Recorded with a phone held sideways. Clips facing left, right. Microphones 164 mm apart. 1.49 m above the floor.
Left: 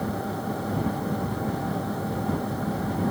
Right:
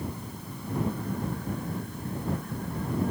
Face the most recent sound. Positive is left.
turn(degrees=75)  # may be behind; listen again after turning